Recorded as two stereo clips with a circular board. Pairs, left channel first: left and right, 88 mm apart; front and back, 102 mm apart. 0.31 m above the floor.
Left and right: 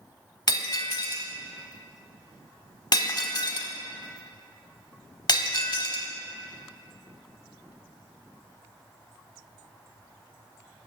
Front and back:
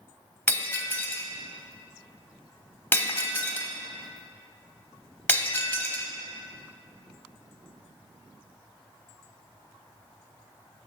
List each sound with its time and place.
0.5 s breaking glass: 65° left, 0.8 m